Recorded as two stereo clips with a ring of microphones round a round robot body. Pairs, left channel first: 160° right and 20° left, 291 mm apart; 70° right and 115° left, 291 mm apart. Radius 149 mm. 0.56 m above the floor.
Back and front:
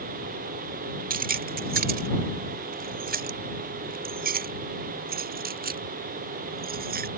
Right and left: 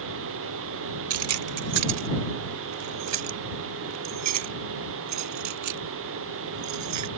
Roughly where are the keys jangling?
Left.